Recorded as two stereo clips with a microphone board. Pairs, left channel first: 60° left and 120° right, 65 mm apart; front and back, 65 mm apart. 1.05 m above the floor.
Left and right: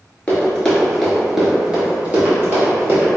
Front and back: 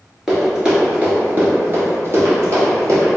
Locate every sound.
0.3 s running footsteps: 105° left, 1.1 m; by 3.1 s 155° right, 1.6 m